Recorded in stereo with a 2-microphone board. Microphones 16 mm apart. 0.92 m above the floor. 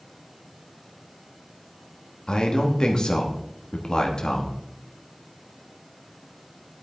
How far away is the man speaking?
About 1.3 m.